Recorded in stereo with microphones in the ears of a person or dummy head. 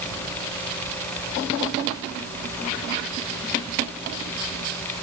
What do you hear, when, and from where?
Only background noise.